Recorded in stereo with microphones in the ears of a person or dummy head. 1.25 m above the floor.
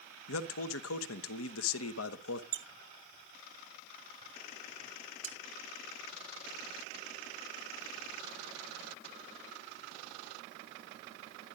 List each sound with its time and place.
0.3 s a man speaking: 90° left, 1.0 m
2.5 s a squeak: 60° right (ahead or behind), 0.9 m
5.2 s cutlery clinking: 40° right (ahead or behind), 0.9 m